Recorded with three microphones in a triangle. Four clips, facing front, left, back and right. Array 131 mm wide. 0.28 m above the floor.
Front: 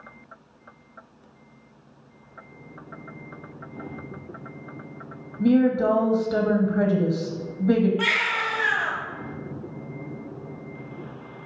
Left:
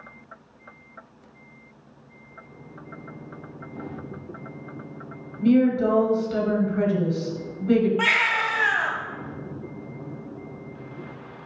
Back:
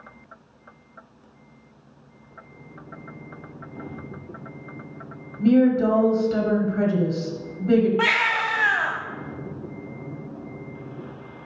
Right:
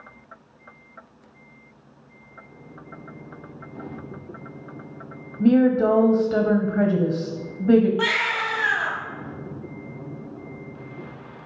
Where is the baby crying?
160° left, 1.5 m.